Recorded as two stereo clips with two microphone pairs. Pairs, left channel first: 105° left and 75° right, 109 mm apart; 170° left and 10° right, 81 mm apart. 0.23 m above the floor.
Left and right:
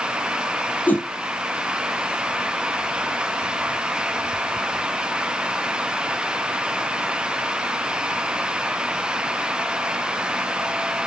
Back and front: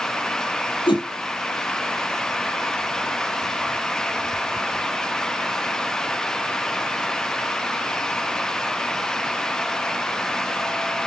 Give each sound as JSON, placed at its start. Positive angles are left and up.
{"t": 0.9, "sound": "a whoosh", "azimuth_deg": 180, "distance_m": 2.5}